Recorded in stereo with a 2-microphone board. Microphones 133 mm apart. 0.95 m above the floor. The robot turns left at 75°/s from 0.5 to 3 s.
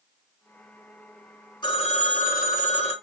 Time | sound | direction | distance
1.6 | a phone ringing | 145° left | 1.0 m